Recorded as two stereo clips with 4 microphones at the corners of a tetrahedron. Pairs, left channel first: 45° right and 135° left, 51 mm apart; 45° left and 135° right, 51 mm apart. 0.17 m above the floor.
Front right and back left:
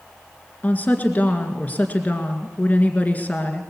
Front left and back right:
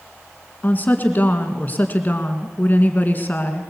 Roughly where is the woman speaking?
Ahead.